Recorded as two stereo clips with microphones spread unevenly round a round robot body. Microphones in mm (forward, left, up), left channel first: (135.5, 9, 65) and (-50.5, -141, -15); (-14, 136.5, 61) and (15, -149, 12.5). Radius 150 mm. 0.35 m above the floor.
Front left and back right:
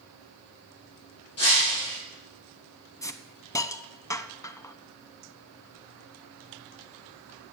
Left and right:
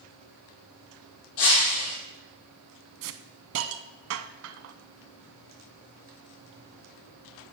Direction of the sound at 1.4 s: 95° left.